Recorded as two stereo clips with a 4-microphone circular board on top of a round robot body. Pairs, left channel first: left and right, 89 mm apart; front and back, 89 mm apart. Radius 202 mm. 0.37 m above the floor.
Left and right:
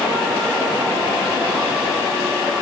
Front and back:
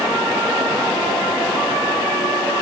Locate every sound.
Only background noise.